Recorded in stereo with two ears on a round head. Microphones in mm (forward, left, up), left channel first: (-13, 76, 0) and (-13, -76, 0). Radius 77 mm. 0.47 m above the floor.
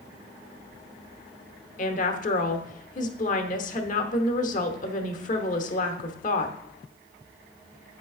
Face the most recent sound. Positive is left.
turn(degrees=50)  # may be behind; listen again after turning